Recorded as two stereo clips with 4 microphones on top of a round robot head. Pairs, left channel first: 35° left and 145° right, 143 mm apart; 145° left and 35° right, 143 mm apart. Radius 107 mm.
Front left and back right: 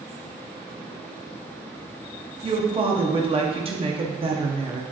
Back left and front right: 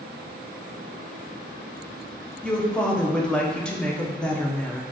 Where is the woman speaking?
135° right, 0.6 m.